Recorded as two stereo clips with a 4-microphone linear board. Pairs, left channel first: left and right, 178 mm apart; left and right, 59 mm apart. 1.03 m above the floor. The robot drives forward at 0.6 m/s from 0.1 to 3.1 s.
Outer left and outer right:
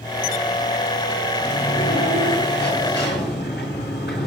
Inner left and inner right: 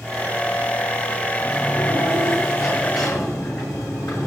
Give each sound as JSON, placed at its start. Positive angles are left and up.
{"t": 1.4, "sound": "a sliding door", "side_deg": 75, "distance_m": 7.5}